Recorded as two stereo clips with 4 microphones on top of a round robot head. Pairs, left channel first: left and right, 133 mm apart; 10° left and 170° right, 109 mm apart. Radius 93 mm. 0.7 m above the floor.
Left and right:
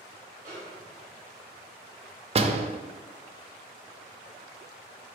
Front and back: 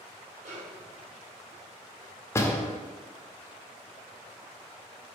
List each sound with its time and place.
0.5 s a snare drum: 160° right, 2 m
2.4 s a door slam: 55° right, 0.7 m